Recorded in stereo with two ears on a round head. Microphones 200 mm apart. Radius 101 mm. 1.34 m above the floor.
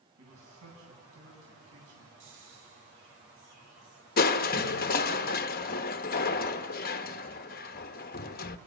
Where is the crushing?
45° left (ahead or behind), 0.8 m.